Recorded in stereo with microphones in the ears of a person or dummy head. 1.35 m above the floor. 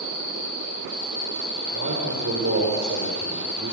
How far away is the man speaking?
About 4 m.